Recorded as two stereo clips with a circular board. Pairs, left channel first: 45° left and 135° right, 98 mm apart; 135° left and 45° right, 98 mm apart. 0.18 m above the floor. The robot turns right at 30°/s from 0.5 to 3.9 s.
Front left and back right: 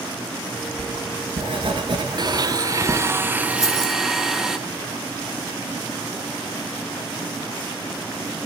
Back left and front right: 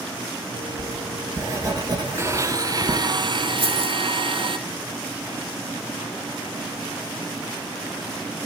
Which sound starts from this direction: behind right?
Writing, at 0.8 s.